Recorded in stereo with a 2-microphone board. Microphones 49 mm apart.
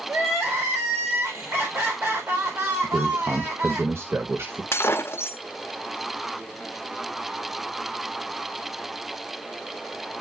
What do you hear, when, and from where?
0.1 s crying: 55° right (ahead or behind), 4 m
2.8 s a man speaking: 60° right (ahead or behind), 0.8 m
4.7 s breaking glass: 55° left (ahead or behind), 0.8 m